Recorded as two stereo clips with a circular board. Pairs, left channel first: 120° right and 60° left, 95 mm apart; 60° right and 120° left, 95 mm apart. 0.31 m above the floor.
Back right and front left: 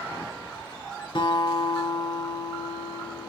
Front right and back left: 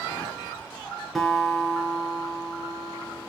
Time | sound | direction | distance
1.1 | a guitar | 150° right | 5 m